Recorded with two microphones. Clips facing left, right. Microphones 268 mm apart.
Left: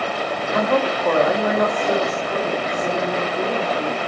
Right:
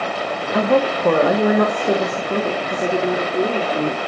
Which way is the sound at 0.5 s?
45° right (ahead or behind).